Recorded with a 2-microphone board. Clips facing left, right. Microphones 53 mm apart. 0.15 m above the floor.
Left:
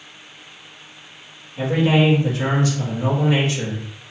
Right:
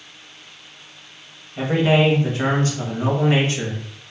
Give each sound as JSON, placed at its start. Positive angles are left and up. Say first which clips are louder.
{"t": 1.6, "sound": "a man speaking", "louder": "even", "side_deg": -35, "distance_m": 1.2}